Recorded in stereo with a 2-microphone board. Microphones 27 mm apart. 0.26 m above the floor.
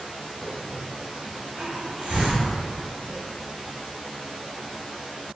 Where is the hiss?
40° right (ahead or behind), 1.0 m.